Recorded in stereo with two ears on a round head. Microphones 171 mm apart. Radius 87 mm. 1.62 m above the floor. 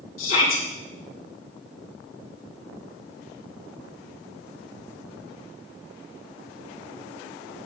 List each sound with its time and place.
0.2 s a shout: 75° left (ahead or behind), 4 m